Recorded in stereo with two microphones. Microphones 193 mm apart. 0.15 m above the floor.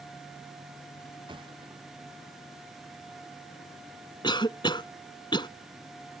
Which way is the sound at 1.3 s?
25° right (ahead or behind).